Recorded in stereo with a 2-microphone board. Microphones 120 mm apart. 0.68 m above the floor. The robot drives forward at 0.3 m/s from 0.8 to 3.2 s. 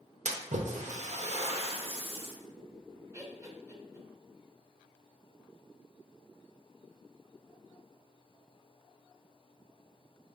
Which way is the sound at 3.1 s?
25° right (ahead or behind).